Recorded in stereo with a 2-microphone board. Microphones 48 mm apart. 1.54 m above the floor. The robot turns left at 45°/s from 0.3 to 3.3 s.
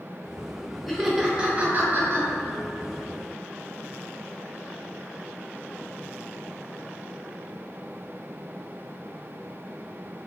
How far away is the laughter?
About 0.7 m.